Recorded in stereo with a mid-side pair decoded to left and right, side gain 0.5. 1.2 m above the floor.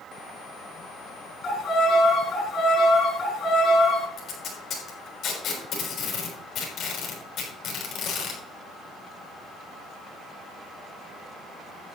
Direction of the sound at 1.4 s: 50° left.